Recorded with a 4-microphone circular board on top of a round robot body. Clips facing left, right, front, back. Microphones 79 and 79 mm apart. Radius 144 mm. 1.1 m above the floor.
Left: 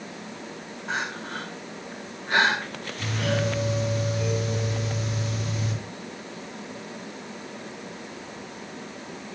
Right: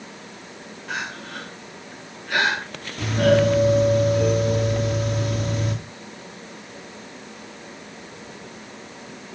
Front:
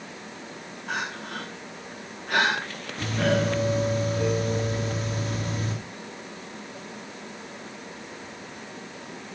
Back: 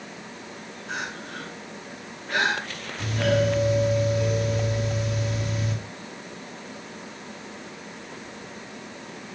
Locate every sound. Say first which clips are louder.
0.9 s crying: left 1 dB, front 2 dB; 30° left, 6.5 m
3.0 s a doorbell: right 10 dB, back 1 dB; 50° right, 3 m